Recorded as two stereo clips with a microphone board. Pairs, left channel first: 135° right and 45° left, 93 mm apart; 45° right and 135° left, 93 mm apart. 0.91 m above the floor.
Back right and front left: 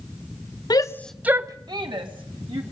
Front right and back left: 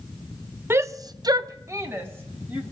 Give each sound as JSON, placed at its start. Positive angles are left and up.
{"t": 0.7, "sound": "a shout", "azimuth_deg": -165, "distance_m": 0.7}